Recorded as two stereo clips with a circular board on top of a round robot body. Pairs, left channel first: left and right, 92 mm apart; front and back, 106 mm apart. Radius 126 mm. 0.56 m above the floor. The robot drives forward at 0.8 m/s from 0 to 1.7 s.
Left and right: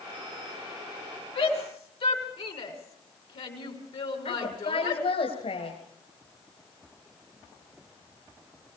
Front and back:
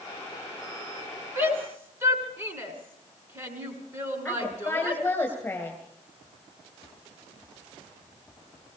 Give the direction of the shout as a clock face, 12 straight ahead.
8 o'clock.